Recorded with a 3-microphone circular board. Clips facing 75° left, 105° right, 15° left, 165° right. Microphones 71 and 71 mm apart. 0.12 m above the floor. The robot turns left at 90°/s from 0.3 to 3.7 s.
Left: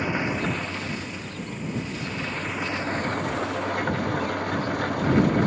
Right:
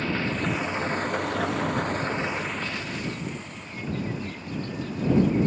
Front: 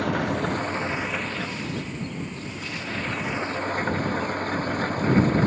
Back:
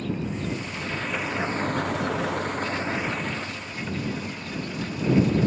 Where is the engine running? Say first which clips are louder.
Left 1 dB, front 5 dB; straight ahead; by 5.5 s 55° left.